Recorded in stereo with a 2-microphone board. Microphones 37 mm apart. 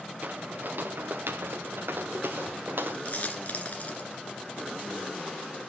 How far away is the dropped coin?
About 1.8 m.